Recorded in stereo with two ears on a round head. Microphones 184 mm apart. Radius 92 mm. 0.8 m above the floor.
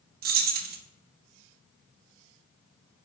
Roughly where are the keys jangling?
Right.